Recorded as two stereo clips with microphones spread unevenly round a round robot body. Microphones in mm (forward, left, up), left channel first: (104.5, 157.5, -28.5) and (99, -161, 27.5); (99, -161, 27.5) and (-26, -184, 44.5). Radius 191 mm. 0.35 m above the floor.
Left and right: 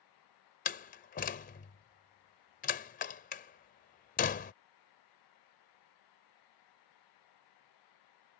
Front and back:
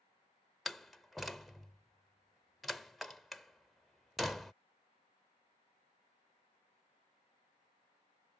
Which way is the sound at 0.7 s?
90° left.